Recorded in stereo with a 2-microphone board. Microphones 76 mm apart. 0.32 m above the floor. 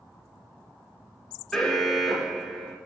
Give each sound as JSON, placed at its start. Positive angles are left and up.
{"t": 1.5, "sound": "an alarm", "side_deg": 5, "distance_m": 0.8}